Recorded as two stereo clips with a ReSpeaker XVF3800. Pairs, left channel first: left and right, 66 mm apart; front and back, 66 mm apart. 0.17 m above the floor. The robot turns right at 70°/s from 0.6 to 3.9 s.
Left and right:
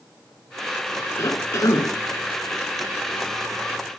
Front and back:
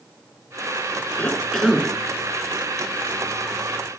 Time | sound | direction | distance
1.2 | a cough | 60° left | 2.0 m